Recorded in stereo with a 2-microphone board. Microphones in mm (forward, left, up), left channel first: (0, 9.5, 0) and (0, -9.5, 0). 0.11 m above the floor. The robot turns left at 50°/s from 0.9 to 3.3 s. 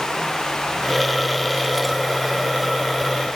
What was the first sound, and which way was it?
Only background noise.